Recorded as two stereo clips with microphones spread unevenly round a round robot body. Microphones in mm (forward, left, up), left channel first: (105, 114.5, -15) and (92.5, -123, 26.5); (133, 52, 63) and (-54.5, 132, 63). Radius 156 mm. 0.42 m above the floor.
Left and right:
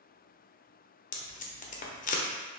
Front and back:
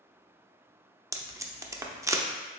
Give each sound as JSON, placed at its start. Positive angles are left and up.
{"t": 1.1, "sound": "tape being pulled", "azimuth_deg": 85, "distance_m": 0.6}